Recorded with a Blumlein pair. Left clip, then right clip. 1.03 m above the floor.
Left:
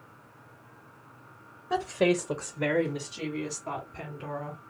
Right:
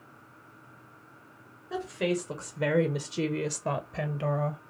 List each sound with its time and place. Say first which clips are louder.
1.7 s a woman speaking: left 5 dB; 35° left, 0.8 m; by 4.6 s 70° right, 1.1 m